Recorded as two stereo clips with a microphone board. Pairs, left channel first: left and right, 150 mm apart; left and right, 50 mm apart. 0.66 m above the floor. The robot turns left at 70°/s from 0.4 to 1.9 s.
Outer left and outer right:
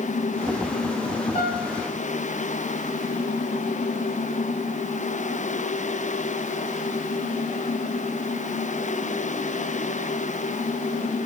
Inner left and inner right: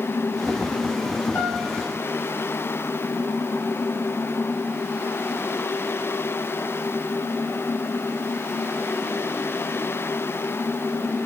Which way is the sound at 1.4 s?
135° left.